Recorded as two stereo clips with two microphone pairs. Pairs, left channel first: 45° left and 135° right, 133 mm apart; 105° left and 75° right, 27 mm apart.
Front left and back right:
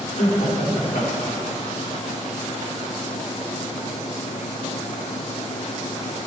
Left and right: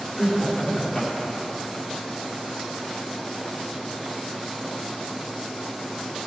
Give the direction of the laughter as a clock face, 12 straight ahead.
11 o'clock.